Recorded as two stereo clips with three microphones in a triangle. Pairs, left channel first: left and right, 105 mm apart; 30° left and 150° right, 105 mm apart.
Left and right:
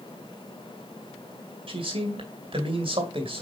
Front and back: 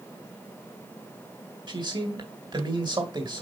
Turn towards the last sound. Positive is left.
turn(degrees=-115)